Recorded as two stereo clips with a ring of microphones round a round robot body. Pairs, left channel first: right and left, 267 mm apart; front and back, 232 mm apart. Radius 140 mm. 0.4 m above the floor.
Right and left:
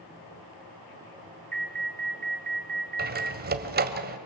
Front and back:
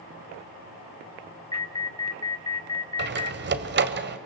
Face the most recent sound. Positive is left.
turn(degrees=145)